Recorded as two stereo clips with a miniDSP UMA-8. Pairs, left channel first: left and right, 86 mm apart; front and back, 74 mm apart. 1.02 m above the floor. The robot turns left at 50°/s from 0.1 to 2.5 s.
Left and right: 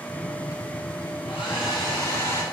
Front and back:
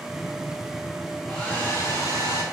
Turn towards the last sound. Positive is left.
turn(degrees=25)